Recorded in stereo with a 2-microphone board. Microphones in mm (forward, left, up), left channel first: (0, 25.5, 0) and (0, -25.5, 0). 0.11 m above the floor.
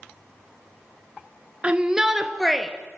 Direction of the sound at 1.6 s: 25° right (ahead or behind).